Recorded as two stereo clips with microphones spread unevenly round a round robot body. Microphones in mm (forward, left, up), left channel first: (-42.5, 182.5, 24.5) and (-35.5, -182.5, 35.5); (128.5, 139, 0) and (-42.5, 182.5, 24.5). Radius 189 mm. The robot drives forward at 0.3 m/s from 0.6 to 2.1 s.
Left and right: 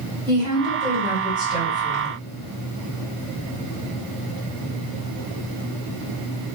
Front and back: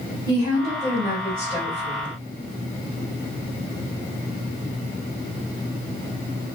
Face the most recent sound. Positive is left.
turn(degrees=-165)